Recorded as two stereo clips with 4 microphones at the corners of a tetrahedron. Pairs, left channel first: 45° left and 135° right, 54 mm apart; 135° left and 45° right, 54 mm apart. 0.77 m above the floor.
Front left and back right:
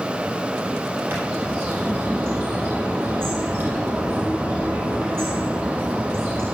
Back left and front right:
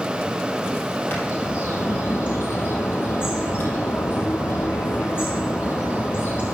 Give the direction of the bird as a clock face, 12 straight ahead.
6 o'clock.